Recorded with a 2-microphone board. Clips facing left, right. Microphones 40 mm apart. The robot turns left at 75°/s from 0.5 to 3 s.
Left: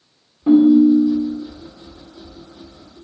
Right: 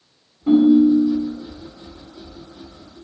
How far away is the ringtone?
About 0.9 m.